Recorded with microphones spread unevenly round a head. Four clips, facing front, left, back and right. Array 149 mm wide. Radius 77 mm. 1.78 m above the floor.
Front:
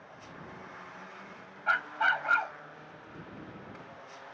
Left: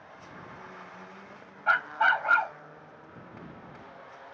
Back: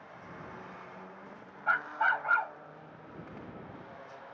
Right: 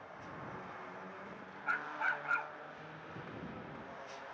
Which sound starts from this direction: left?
A dog barking, at 1.7 s.